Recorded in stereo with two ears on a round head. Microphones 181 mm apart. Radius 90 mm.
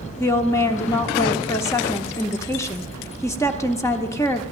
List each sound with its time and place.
0.2 s a woman speaking: 15° left (ahead or behind), 0.8 m